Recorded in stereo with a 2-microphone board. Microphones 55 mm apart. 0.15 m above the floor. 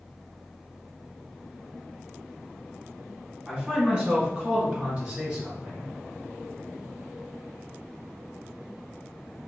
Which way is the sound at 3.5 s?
20° right (ahead or behind).